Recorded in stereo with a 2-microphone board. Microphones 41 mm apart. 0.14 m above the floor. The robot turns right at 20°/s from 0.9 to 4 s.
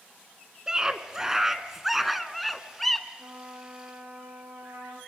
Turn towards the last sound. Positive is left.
turn(degrees=-75)  # may be behind; listen again after turning